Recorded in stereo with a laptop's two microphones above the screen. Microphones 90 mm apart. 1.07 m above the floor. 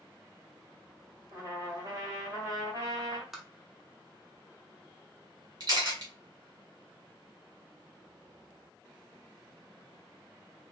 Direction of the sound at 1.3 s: 35° right (ahead or behind).